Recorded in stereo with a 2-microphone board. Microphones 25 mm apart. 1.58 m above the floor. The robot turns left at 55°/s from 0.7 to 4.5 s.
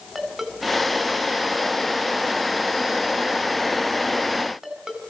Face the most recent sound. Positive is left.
turn(degrees=-20)  # may be behind; listen again after turning